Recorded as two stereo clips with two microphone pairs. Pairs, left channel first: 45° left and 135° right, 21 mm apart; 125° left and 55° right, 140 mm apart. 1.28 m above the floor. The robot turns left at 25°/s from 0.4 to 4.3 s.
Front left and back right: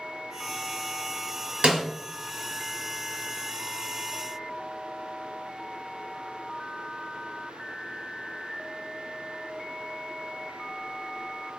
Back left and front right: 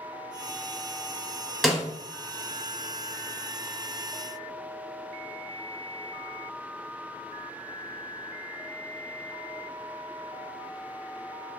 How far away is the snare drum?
About 0.8 m.